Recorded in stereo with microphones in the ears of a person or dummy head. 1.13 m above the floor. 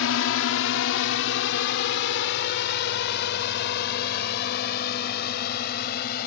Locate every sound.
0.0 s a drone: 70° left (ahead or behind); by 6.3 s 55° left (ahead or behind)